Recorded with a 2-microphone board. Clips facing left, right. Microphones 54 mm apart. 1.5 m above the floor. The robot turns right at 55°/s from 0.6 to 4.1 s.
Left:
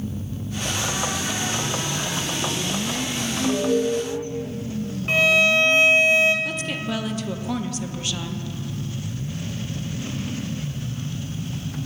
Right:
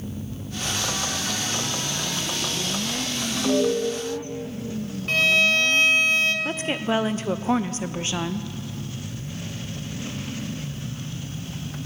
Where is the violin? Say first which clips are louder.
Left 2 dB; 20° left (ahead or behind), 1.3 m.